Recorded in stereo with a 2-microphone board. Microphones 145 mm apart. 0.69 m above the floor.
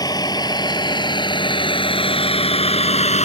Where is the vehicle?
25° left (ahead or behind); by 3.2 s 50° left (ahead or behind).